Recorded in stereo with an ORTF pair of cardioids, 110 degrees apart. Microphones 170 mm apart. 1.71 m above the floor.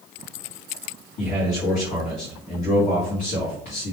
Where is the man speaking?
55° left, 1.2 m.